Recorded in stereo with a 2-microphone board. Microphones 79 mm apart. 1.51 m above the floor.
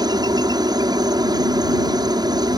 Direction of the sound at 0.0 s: 55° right (ahead or behind).